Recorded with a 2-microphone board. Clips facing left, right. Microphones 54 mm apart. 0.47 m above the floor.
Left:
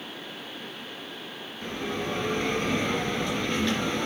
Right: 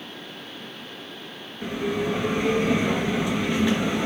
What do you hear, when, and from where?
1.6 s a bell: 15° right (ahead or behind), 2.0 m